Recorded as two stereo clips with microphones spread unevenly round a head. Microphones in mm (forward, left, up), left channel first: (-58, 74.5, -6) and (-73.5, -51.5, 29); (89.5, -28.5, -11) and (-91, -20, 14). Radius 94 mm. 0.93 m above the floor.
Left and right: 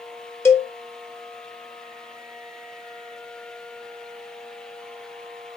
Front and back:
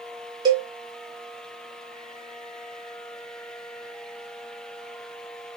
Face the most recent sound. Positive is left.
turn(degrees=110)